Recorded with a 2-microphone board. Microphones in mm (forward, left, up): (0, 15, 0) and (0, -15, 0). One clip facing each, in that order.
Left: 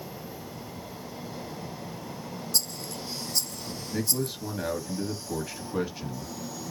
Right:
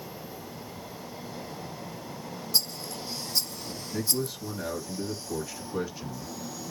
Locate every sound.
2.5 s a rattle: 20° right (ahead or behind), 0.8 m
3.9 s a man speaking: 25° left (ahead or behind), 1.0 m